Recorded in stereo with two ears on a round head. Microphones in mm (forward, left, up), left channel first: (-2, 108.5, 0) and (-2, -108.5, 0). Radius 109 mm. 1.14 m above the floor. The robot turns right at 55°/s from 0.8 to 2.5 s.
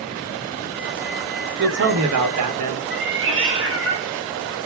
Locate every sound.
1.6 s a man speaking: 140° right, 0.9 m; by 2.8 s 90° right, 0.9 m
2.9 s a cat meowing: 50° right (ahead or behind), 0.8 m